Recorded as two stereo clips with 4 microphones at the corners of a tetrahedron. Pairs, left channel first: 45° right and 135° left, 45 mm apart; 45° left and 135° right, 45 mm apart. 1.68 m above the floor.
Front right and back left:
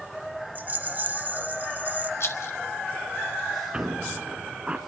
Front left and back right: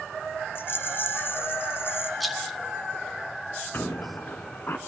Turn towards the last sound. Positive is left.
turn(degrees=70)